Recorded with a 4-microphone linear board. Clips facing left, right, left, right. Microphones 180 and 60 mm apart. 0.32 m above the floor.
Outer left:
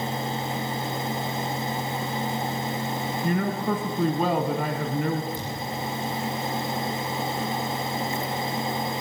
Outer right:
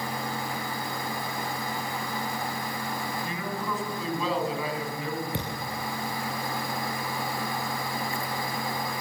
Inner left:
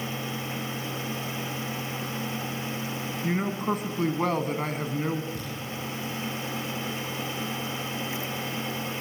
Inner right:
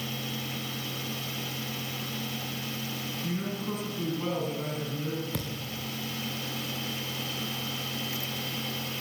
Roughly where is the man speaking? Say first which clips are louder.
Outer left 8 dB, inner left 7 dB; left.